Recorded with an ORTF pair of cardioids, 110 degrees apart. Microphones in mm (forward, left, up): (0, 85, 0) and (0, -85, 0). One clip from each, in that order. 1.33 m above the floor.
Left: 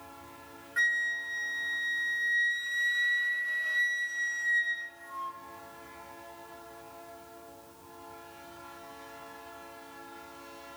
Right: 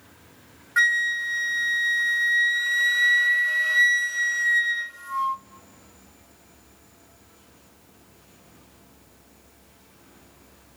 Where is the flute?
50° right, 0.9 m.